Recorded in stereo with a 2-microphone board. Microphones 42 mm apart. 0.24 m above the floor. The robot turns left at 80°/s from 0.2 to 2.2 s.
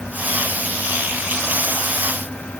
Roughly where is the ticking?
I don't hear ticking.